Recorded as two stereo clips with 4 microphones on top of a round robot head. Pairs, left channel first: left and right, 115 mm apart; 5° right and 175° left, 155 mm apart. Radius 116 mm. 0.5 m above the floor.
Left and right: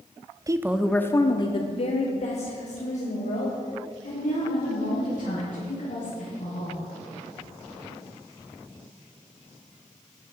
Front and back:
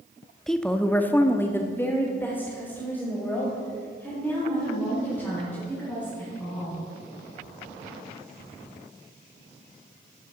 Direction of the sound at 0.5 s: 90° right.